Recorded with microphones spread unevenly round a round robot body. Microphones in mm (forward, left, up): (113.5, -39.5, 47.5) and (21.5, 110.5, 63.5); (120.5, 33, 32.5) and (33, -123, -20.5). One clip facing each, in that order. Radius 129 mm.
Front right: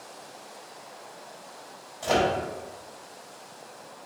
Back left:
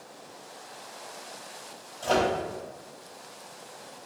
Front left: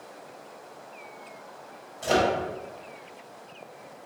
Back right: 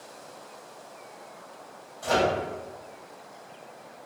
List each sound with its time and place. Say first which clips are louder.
2.0 s a microwave: front right 1 dB, front left 1 dB; 5° right, 0.7 m